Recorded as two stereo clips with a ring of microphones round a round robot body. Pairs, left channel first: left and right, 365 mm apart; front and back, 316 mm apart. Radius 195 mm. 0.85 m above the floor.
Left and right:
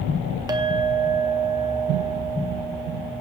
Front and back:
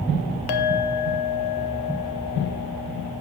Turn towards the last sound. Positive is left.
turn(degrees=-10)